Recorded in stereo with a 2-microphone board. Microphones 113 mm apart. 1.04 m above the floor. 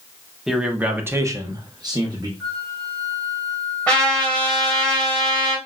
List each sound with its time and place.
0.5 s a man speaking: 5° right (ahead or behind), 0.9 m; by 2.3 s 35° right (ahead or behind), 1.0 m
2.4 s a flute: 5° left (ahead or behind), 2.5 m
3.9 s a trumpet: 10° left (ahead or behind), 1.9 m